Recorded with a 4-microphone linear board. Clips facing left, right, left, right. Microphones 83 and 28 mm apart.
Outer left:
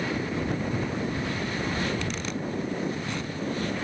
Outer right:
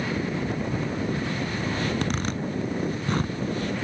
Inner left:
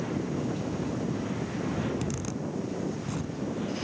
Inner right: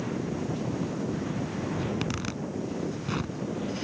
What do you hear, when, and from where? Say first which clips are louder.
1.8 s a zipper: outer right 3 dB, inner right 1 dB; 50° right (ahead or behind)